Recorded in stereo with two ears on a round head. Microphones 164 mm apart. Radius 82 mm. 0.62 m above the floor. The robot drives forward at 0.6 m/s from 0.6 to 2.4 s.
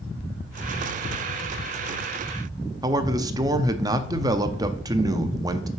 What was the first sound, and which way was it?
A man speaking, 20° right (ahead or behind).